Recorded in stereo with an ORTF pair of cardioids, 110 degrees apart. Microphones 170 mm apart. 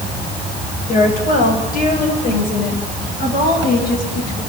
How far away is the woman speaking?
About 7.5 m.